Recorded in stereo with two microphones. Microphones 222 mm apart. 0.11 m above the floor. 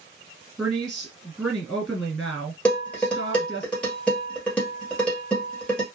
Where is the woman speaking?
Centre (ahead or behind), 1.3 m.